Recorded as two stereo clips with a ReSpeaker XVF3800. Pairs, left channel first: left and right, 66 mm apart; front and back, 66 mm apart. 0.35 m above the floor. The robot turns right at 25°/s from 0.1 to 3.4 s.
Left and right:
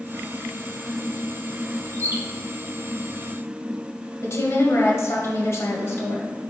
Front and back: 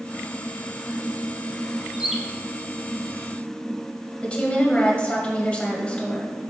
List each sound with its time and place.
1.9 s a bird: 100° right, 0.9 m; by 2.2 s 90° right, 0.9 m
4.2 s a woman speaking: 65° left, 1.7 m